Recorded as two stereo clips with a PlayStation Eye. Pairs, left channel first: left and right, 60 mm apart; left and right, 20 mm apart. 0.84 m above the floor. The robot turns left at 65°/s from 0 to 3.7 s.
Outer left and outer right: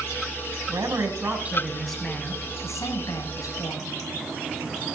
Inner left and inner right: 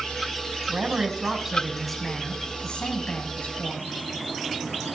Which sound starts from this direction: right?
A man speaking, at 0.7 s.